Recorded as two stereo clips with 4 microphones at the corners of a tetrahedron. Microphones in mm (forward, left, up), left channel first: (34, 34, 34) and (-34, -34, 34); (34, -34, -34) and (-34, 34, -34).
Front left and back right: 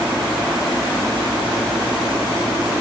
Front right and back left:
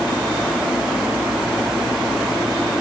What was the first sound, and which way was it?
Only background noise.